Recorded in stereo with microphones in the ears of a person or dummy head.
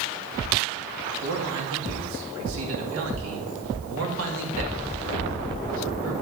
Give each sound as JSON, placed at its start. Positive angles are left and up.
{"t": 1.2, "sound": "a man speaking", "side_deg": -70, "distance_m": 2.5}